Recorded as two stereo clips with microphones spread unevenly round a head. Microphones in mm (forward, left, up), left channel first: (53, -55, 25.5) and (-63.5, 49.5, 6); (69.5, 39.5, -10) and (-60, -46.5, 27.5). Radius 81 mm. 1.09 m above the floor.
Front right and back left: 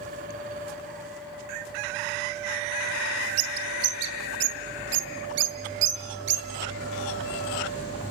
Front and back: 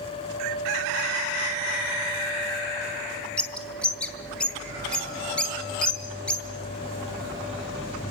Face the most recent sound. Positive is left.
turn(degrees=120)